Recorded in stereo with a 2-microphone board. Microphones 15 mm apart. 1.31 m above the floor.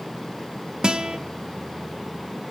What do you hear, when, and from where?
0.8 s a guitar: 80° right, 1.0 m